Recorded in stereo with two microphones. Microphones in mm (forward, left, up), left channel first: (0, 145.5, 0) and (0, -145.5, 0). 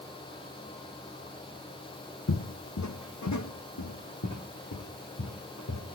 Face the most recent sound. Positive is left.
turn(degrees=65)  # may be behind; listen again after turning